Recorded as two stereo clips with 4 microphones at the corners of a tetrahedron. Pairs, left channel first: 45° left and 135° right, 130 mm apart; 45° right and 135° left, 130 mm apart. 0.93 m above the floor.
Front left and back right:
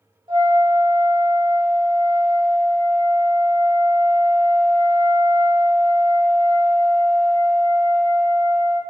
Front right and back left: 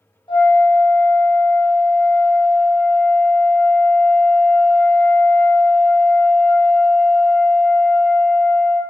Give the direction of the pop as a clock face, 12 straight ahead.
No pop in this recording.